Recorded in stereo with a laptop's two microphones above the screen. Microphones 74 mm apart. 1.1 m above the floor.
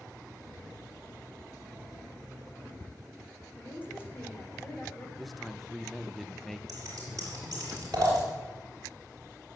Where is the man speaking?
Centre (ahead or behind), 0.7 m.